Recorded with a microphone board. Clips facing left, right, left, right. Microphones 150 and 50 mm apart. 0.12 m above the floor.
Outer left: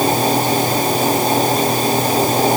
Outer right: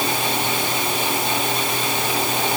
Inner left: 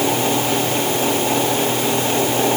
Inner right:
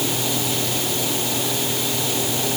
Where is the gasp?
No gasp in this recording.